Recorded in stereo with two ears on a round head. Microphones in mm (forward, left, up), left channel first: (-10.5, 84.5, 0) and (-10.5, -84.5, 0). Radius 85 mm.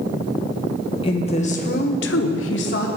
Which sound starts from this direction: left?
A woman speaking, at 1.0 s.